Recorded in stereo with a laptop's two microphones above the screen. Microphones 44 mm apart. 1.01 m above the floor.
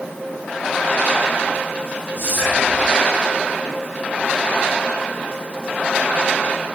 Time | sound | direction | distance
2.2 | whispering | 60° right (ahead or behind) | 3.5 m